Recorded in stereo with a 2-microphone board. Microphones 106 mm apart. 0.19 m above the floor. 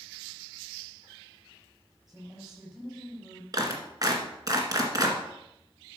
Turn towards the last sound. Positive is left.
turn(degrees=-40)  # may be behind; listen again after turning